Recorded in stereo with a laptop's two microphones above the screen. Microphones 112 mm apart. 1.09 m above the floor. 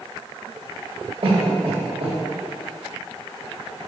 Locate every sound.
1.2 s a cough: 55° right (ahead or behind), 1.1 m